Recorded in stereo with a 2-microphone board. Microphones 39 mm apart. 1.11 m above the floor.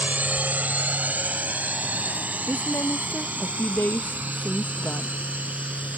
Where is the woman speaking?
65° left (ahead or behind).